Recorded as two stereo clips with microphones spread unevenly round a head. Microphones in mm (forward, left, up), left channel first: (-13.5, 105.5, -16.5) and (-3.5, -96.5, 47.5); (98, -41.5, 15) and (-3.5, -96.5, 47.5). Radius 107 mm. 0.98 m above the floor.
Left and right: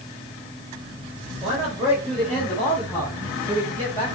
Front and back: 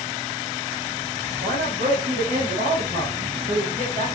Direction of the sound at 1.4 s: Straight behind.